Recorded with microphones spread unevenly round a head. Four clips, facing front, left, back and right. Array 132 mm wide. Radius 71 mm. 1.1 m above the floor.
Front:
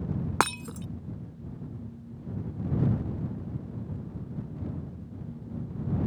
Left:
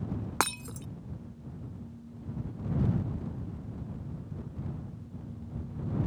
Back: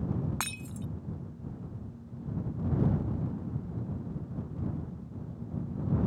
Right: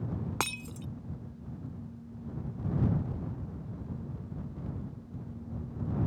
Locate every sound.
0.4 s breaking glass: 10° left